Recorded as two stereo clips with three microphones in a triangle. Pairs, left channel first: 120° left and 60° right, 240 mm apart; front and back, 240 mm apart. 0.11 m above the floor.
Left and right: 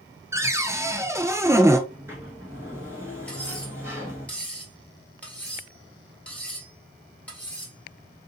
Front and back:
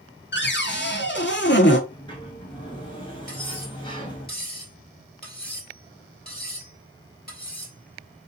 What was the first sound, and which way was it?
A cupboard door, 15° left.